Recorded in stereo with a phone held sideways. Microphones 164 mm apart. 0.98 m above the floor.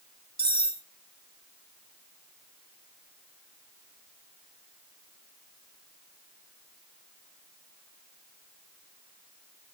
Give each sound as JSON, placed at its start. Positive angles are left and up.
{"t": 0.4, "sound": "cutlery clinking", "side_deg": -75, "distance_m": 1.6}